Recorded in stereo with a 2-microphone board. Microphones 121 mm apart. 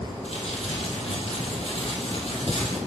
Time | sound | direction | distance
0.2 | crumpling | 60° left (ahead or behind) | 4.5 m